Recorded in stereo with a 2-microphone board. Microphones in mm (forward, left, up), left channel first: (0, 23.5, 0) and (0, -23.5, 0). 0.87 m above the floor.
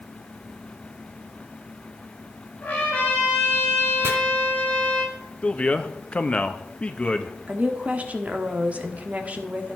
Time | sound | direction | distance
2.6 | a trumpet | 35° left (ahead or behind) | 6.5 m
4.0 | chopping | 65° right (ahead or behind) | 2.5 m
5.4 | a man speaking | 25° left (ahead or behind) | 1.2 m
7.5 | a woman speaking | 30° right (ahead or behind) | 1.5 m